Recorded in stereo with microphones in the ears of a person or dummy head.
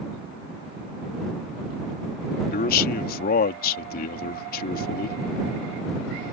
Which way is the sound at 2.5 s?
50° left (ahead or behind).